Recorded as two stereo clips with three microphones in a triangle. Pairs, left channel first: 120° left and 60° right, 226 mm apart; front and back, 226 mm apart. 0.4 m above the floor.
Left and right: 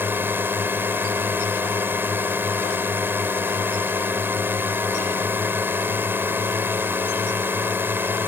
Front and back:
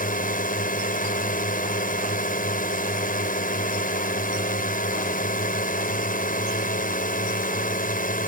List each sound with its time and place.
0.0 s a drone: 15° left